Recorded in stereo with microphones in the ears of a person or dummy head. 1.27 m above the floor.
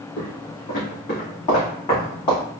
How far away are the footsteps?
About 2 m.